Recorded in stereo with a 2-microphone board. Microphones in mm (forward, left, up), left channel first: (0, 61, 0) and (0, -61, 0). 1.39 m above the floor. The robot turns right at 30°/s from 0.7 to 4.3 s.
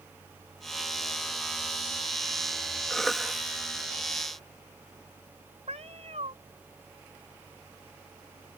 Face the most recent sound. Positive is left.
turn(degrees=-65)  # may be behind; listen again after turning